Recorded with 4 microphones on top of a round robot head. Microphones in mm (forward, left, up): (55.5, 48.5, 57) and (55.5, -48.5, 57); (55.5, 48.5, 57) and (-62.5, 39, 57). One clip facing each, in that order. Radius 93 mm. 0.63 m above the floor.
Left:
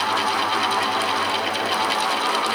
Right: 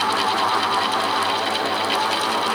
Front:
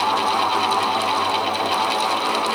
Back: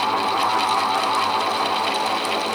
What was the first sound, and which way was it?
Only background noise.